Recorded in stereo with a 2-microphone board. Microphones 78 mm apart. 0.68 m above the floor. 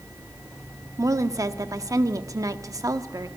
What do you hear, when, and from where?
1.0 s a woman speaking: 45° right (ahead or behind), 1.1 m